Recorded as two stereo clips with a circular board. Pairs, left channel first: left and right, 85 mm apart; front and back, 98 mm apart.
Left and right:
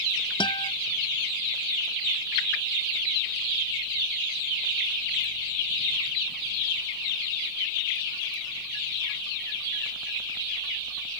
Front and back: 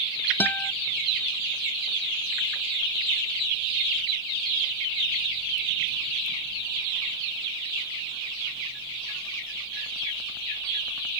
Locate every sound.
0.4 s a guitar: 70° left